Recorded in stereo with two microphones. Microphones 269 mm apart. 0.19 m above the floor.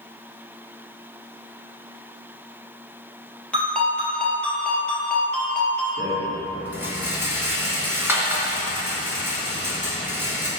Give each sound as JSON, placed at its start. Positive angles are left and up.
{"t": 3.5, "sound": "a ringtone", "side_deg": 5, "distance_m": 2.5}
{"t": 6.0, "sound": "a rattle", "side_deg": -10, "distance_m": 2.0}